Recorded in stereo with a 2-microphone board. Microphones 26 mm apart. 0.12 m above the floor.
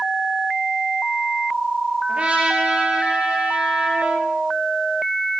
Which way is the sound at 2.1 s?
45° right (ahead or behind).